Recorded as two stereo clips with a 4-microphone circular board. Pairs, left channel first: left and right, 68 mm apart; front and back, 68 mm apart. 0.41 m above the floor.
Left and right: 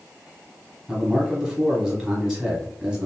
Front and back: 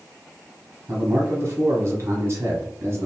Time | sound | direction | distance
0.9 | a man speaking | 170° right | 1.0 m